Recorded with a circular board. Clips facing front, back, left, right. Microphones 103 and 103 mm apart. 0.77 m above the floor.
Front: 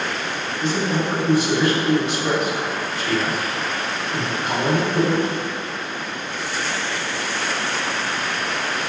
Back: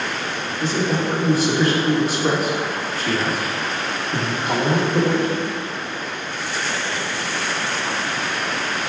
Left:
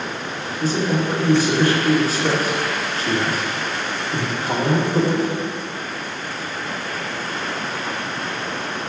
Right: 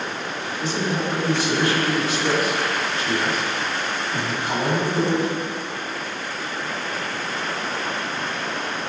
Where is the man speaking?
135° left, 2 m.